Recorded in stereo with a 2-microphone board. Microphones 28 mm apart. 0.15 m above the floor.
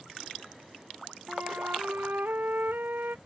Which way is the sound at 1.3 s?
80° right.